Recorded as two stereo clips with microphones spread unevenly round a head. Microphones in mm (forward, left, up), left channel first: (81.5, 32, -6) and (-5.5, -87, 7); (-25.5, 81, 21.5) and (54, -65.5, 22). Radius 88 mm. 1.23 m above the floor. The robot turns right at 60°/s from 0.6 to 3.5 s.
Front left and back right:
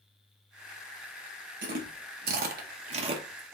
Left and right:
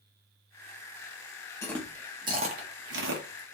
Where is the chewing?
165° right, 0.8 m; by 3.5 s 55° right, 0.8 m.